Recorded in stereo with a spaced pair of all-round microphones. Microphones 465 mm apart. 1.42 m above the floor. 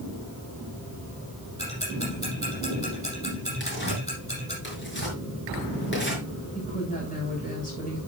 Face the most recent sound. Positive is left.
turn(degrees=15)  # may be behind; listen again after turning